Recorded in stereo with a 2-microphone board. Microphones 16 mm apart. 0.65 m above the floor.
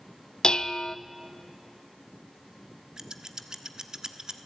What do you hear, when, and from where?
0.4 s dishes clattering: 60° left (ahead or behind), 0.7 m
3.0 s scissors: 45° right (ahead or behind), 1.3 m